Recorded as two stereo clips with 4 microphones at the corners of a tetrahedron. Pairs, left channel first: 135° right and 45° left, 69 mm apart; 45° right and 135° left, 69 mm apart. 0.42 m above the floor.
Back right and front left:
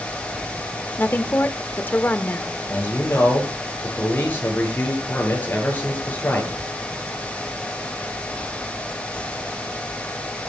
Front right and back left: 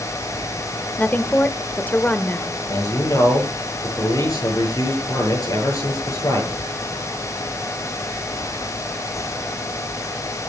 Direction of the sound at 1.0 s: 90° right.